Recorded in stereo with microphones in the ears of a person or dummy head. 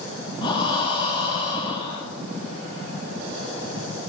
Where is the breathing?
30° left (ahead or behind), 0.7 m.